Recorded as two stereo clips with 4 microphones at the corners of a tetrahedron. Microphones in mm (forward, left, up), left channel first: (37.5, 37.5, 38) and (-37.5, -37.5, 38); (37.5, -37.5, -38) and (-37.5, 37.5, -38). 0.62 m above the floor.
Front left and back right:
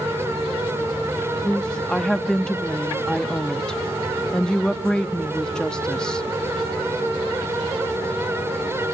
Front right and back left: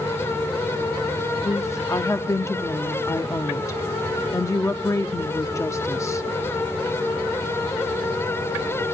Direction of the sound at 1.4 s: 30° right.